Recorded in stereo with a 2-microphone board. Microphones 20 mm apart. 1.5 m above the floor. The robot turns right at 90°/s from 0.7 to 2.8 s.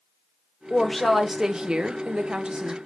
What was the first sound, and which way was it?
A woman speaking, 145° left.